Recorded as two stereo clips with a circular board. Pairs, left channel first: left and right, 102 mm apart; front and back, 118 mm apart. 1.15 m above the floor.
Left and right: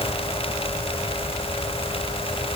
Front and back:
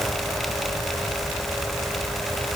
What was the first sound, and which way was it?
Only background noise.